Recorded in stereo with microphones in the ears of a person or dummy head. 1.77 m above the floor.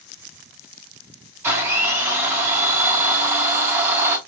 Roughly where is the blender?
Centre.